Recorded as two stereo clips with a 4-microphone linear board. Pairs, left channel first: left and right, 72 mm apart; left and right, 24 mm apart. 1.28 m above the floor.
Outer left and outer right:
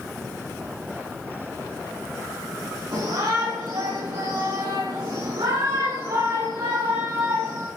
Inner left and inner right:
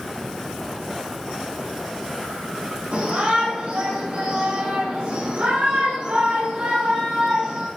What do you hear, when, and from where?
2.9 s a shout: 70° right (ahead or behind), 5.5 m; by 7.7 s 80° right, 3.5 m